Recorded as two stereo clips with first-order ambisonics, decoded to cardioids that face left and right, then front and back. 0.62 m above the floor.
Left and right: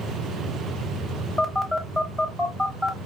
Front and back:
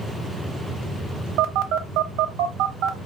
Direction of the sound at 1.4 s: Straight behind.